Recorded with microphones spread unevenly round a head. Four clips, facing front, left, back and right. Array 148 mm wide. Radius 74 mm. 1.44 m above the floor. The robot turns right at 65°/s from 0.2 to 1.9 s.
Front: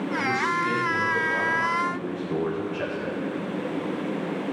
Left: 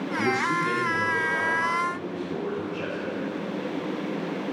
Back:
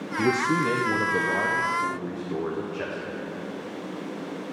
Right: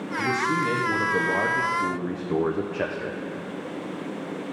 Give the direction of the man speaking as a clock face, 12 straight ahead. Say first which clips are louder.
Right 1 dB, back 5 dB; 7 o'clock.